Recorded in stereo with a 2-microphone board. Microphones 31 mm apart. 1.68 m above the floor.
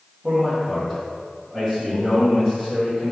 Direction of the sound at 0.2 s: Centre (ahead or behind).